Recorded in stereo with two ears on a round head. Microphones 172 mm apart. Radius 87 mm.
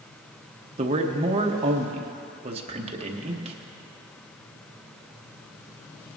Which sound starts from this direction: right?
A man speaking, at 0.8 s.